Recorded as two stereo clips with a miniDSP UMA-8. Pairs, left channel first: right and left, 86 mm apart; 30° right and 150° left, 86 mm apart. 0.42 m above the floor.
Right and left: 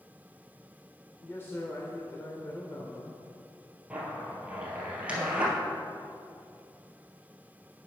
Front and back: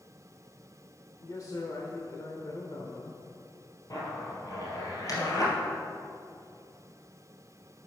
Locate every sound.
1.2 s a man speaking: 40° right, 1.0 m
3.9 s a zipper: 15° left, 2.5 m